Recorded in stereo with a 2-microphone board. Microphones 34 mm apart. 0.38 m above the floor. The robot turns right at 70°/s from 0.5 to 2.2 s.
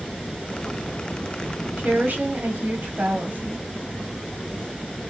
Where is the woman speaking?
110° right, 1.6 m; by 3.6 s 80° right, 1.6 m.